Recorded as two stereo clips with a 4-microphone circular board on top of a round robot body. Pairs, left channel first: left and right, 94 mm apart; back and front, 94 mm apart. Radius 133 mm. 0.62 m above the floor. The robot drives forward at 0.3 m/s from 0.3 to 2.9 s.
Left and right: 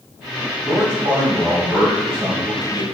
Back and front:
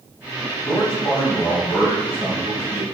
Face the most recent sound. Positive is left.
turn(degrees=-145)